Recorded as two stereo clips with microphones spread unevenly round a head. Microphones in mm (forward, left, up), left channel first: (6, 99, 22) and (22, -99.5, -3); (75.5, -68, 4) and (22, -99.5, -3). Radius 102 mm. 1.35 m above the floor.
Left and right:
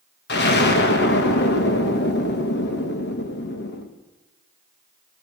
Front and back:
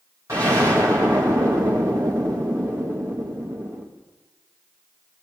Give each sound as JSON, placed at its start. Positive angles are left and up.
{"t": 0.3, "sound": "an explosion", "azimuth_deg": 135, "distance_m": 1.8}